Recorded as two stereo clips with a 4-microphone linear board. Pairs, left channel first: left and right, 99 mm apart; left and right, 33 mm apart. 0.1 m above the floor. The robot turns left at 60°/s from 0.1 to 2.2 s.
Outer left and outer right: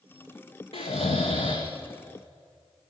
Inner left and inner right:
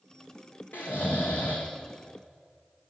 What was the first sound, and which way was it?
Snoring, 105° left.